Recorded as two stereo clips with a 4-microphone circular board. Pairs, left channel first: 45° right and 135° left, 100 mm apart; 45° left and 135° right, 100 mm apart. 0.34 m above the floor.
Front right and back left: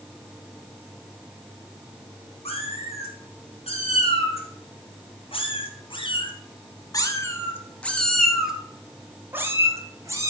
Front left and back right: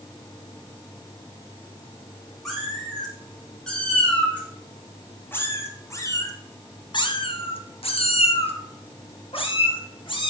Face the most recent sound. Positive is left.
turn(degrees=80)